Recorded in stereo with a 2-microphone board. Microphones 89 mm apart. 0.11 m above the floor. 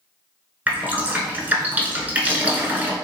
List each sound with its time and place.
0.7 s dripping: 20° right (ahead or behind), 1.0 m